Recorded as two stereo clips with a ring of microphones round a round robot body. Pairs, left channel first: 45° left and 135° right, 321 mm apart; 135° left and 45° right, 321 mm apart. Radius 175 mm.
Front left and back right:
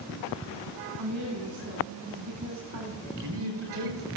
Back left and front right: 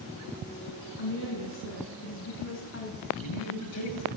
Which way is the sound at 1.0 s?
170° right.